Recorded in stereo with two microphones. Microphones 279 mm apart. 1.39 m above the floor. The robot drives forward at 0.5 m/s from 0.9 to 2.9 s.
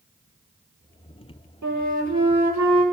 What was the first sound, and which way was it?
A flute, 80° right.